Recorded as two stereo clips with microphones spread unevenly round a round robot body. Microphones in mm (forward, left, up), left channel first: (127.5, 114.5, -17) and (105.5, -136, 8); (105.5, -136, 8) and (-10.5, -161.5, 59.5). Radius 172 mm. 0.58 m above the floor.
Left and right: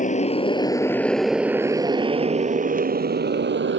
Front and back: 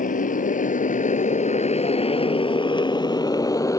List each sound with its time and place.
0.0 s a motorcycle: 25° left; by 3.8 s 50° right